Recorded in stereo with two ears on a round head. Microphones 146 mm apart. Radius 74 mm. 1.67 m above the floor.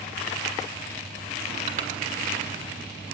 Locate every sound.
1.7 s crushing: 45° right (ahead or behind), 2.5 m